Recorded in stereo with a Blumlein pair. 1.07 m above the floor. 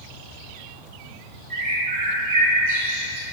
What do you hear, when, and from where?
1.5 s a bird: 45° right, 0.8 m